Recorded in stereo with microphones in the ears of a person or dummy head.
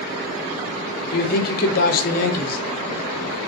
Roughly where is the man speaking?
Left.